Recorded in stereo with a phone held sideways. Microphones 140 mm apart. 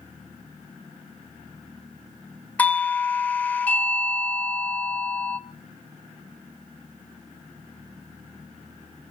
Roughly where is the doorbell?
Centre.